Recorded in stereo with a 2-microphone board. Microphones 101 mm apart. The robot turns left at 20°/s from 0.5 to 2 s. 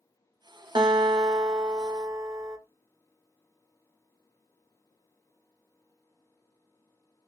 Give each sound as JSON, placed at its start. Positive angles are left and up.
{"t": 0.8, "sound": "a guitar", "side_deg": -50, "distance_m": 0.7}